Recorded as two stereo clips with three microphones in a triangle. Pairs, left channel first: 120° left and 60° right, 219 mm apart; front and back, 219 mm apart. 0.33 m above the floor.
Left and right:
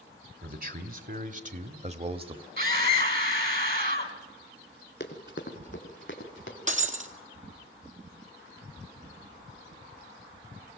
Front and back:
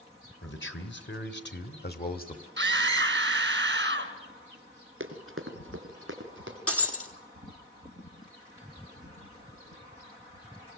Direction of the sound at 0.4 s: 20° right.